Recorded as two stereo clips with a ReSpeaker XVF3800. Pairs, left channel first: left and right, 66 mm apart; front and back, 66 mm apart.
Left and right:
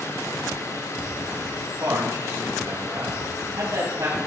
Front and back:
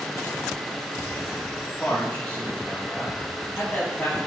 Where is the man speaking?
65° right, 3.5 m.